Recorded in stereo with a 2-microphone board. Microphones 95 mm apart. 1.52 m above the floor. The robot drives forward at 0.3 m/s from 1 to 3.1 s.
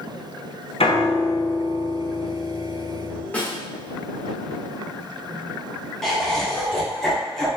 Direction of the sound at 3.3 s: 15° left (ahead or behind).